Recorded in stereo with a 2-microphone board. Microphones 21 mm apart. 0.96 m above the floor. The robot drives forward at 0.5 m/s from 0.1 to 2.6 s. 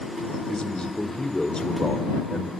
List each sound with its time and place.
0.5 s a man speaking: 45° left (ahead or behind), 2.5 m; by 2.5 s 35° left (ahead or behind), 3 m